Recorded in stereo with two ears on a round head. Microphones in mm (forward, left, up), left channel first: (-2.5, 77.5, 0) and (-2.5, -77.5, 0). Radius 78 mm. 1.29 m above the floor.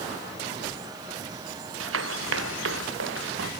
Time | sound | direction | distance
1.8 | running footsteps | 85° right | ?